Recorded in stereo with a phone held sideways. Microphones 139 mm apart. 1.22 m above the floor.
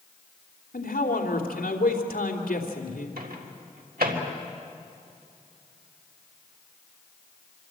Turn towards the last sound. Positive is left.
turn(degrees=-90)